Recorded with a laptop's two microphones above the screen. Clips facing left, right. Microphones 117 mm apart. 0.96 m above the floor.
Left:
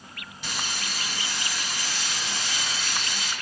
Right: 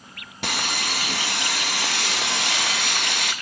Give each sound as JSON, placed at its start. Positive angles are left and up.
{"t": 0.4, "sound": "sawing", "side_deg": -70, "distance_m": 0.8}